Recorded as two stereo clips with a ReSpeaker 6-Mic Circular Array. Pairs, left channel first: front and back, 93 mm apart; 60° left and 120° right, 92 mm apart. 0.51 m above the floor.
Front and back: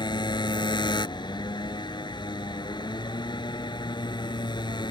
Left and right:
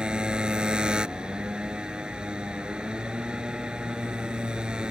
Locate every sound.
0.0 s a motorcycle: 40° right